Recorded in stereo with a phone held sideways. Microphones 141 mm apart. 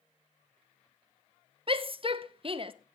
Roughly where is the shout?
Right.